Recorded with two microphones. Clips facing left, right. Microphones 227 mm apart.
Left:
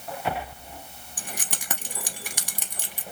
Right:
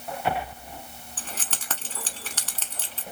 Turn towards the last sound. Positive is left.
turn(degrees=15)  # may be behind; listen again after turning